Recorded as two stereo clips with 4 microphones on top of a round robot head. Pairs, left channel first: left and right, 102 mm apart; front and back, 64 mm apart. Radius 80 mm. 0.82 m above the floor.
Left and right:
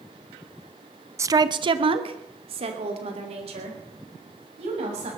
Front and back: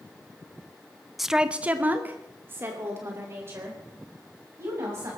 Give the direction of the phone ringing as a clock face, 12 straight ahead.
I don't hear a phone ringing.